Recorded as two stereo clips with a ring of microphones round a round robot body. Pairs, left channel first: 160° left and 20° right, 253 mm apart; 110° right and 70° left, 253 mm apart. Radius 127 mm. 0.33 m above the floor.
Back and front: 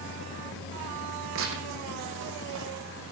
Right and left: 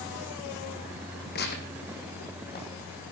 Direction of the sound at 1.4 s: 60° right.